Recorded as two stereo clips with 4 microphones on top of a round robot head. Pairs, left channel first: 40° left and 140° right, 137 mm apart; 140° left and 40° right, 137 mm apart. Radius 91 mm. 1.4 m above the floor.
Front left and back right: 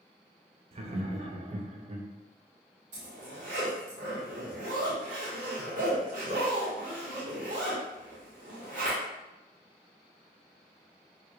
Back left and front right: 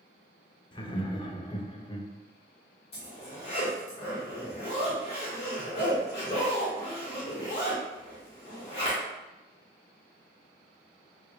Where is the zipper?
175° right, 1.6 m.